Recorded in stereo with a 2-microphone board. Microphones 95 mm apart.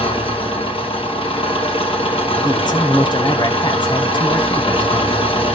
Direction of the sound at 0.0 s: 80° left.